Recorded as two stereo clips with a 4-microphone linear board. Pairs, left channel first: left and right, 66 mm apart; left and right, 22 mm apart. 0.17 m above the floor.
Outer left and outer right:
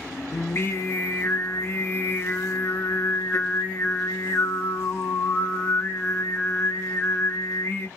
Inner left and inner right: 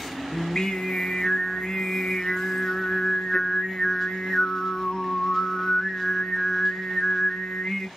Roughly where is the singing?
Left.